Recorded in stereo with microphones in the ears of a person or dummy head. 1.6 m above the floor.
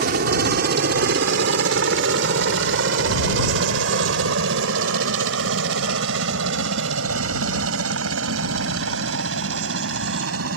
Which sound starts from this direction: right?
A helicopter, at 0.0 s.